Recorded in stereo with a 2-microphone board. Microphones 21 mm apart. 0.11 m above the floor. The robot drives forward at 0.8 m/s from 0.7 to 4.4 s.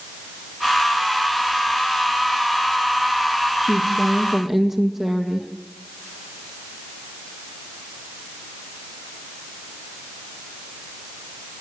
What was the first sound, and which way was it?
A woman speaking, 10° right (ahead or behind).